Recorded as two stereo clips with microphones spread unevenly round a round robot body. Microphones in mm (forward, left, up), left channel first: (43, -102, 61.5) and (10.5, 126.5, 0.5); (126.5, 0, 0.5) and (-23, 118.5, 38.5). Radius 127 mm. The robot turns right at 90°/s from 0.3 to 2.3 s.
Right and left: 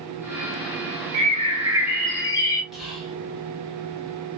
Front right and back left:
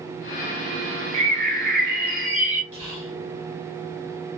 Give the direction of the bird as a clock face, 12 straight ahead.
9 o'clock.